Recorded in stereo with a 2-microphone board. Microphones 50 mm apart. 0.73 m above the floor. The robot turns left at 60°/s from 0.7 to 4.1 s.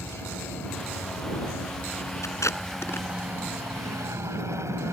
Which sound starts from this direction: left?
Tape being pulled, at 2.2 s.